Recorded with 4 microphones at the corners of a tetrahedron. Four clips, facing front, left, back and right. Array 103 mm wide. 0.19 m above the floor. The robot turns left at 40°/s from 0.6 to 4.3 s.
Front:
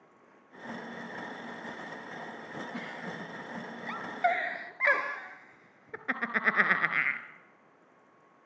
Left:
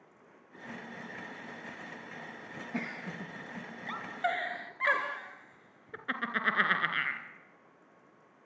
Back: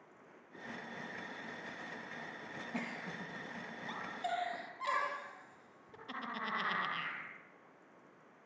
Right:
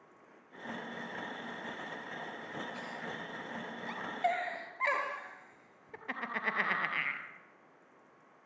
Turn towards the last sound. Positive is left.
turn(degrees=20)